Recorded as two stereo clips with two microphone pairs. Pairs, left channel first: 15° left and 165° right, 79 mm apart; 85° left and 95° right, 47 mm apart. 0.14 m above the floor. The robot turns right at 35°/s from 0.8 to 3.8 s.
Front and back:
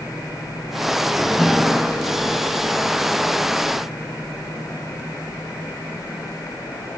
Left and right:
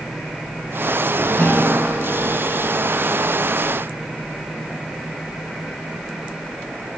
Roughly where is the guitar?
Left.